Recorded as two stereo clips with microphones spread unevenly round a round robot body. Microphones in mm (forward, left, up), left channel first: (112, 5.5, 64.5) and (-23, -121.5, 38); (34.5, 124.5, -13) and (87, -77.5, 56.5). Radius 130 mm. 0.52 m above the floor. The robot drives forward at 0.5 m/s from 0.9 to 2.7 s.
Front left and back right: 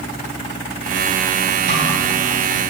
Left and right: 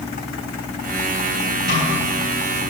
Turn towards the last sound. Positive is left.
turn(degrees=-140)